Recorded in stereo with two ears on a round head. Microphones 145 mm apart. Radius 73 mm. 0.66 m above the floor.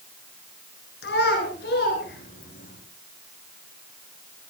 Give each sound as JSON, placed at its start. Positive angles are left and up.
{"t": 1.0, "sound": "a child speaking", "side_deg": 70, "distance_m": 7.5}